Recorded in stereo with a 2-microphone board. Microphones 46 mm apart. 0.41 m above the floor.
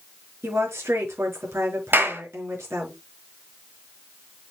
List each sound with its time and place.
0.4 s a woman speaking: 75° right (ahead or behind), 5.5 m
1.9 s a clap: 55° right (ahead or behind), 5.5 m